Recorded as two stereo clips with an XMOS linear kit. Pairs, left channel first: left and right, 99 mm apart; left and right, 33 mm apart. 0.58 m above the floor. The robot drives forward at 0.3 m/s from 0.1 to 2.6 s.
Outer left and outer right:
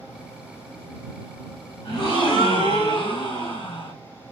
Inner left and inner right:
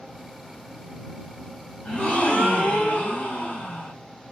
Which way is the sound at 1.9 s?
60° left (ahead or behind).